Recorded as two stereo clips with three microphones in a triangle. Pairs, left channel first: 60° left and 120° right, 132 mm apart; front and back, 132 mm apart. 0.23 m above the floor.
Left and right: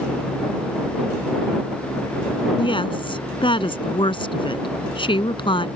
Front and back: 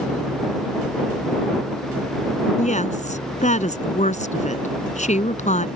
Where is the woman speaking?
15° left.